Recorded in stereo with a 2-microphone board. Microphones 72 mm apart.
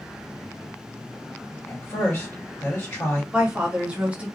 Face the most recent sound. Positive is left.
turn(degrees=-20)  # may be behind; listen again after turning